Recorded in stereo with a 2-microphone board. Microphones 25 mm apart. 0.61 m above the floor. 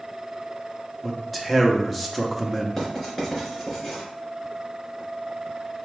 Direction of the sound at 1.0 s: 5° left (ahead or behind).